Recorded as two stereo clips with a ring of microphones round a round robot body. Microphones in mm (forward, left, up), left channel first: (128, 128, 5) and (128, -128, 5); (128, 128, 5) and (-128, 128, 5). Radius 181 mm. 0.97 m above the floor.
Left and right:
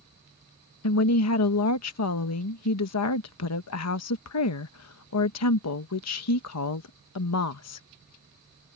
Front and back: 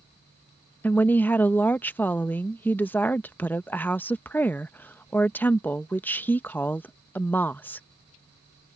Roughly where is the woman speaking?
Left.